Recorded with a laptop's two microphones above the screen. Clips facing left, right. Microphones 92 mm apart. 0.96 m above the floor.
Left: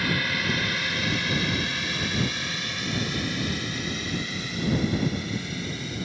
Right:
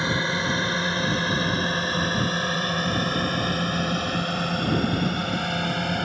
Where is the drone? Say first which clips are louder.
Right 3 dB; 25° right (ahead or behind); by 6.0 s 65° right (ahead or behind).